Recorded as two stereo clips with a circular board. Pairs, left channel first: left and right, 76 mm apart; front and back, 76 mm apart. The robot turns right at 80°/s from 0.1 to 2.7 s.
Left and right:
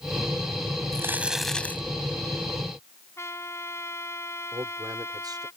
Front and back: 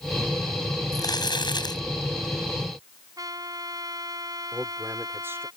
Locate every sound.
0.9 s crumpling: 40° right; by 1.8 s 30° left
3.2 s a trumpet: 145° left
4.5 s a man speaking: 125° right